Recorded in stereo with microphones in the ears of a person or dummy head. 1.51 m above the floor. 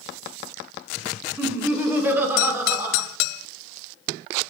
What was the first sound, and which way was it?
Laughter, 15° right (ahead or behind).